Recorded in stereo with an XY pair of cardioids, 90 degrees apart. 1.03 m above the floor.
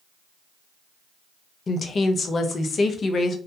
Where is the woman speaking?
50° left, 0.6 m.